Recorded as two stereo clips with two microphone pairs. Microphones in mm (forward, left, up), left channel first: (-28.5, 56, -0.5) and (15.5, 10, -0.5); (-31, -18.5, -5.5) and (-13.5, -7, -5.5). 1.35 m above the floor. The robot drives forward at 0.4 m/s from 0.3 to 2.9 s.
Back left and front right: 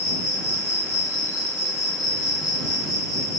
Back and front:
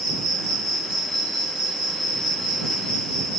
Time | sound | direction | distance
0.0 | an insect | 65° right | 1.3 m